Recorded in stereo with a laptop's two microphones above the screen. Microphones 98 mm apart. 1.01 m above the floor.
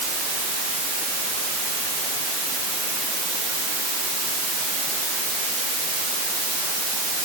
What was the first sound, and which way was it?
Only background noise.